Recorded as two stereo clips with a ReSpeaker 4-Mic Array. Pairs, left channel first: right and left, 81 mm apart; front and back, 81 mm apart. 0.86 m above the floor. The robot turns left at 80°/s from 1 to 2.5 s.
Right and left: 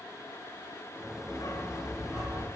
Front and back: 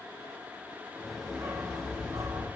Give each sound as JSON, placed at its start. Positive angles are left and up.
{"t": 1.3, "sound": "a dog barking", "azimuth_deg": -120, "distance_m": 3.5}